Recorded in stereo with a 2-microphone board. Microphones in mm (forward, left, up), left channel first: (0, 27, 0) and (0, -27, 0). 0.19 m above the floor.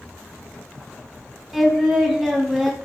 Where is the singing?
5° right (ahead or behind), 0.7 m.